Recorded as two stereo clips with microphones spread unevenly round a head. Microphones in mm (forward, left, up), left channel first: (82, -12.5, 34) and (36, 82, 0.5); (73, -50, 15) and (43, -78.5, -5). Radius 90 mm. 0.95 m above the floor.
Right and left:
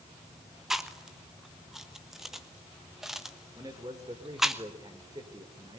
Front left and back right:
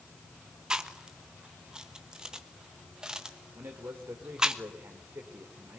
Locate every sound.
0.7 s chewing: 175° right, 1.2 m
3.5 s a man speaking: straight behind, 3.5 m